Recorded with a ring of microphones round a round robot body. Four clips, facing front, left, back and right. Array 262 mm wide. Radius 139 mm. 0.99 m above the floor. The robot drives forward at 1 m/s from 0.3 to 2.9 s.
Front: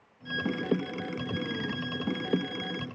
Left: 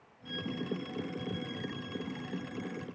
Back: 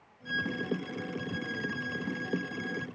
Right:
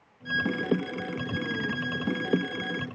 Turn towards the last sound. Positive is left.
turn(degrees=-100)